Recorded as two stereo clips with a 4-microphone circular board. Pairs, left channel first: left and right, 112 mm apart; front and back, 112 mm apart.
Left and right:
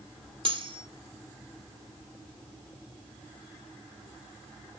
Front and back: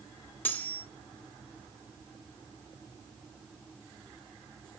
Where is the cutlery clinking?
70° right, 0.5 m.